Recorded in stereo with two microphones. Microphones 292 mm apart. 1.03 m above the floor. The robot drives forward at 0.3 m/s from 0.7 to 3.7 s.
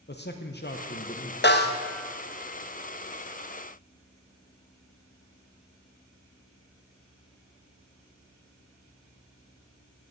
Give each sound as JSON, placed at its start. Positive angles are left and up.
{"t": 0.1, "sound": "a man speaking", "side_deg": 35, "distance_m": 0.6}
{"t": 1.4, "sound": "a snare drum", "side_deg": 40, "distance_m": 0.8}